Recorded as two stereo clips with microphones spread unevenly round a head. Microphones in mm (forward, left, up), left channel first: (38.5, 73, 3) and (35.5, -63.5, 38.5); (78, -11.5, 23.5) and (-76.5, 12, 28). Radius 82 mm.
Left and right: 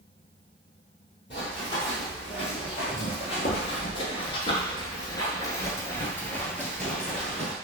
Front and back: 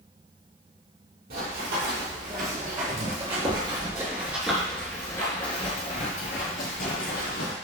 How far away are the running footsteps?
About 2 m.